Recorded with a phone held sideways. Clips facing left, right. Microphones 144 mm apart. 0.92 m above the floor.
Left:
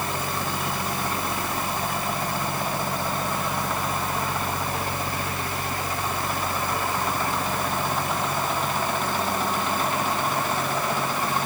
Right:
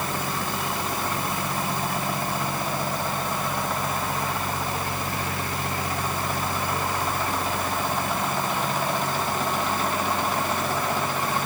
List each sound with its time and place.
Only background noise.